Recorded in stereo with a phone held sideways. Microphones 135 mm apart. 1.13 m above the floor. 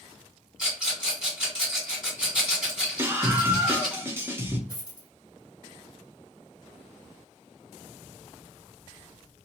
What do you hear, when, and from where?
0.6 s a rattle: 5° right (ahead or behind), 1.7 m
3.0 s a scream: 15° right (ahead or behind), 0.6 m
4.7 s a dropped coin: 30° left (ahead or behind), 1.2 m